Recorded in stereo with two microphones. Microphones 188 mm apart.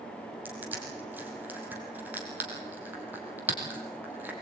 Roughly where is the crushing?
Centre.